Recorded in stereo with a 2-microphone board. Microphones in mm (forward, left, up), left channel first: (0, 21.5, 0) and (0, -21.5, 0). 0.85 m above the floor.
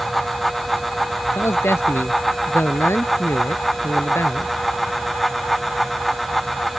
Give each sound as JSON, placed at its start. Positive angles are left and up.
{"t": 1.4, "sound": "a man speaking", "side_deg": 70}